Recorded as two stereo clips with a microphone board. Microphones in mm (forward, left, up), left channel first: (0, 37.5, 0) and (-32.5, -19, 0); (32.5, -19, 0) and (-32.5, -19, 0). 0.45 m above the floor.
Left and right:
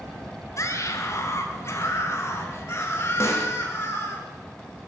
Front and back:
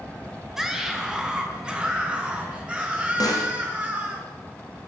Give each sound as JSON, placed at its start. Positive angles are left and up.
{"t": 0.6, "sound": "a scream", "azimuth_deg": 95, "distance_m": 4.0}
{"t": 3.2, "sound": "a snare drum", "azimuth_deg": 15, "distance_m": 4.5}